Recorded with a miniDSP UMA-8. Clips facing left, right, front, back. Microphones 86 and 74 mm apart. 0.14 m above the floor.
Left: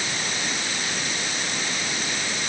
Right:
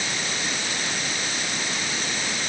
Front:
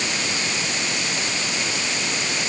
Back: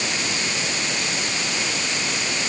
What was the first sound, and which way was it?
Only background noise.